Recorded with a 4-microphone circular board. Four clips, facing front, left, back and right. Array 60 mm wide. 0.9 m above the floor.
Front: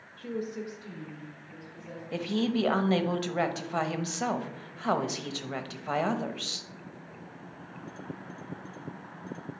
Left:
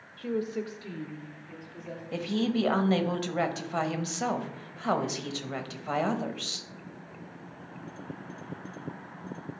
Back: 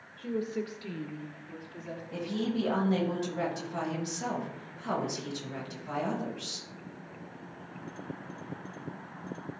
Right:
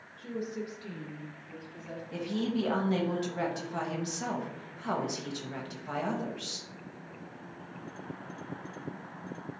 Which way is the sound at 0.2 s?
75° left.